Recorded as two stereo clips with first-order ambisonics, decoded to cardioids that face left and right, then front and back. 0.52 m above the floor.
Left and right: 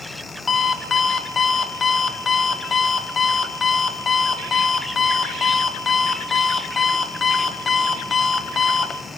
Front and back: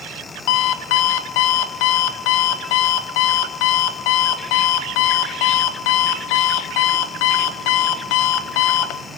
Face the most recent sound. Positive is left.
turn(degrees=15)